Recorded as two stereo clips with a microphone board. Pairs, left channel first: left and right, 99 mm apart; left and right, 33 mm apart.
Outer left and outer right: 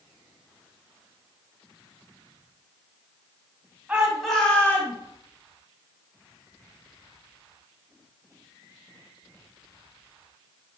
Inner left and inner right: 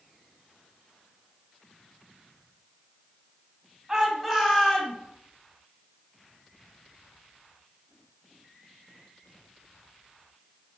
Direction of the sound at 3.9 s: 10° right (ahead or behind).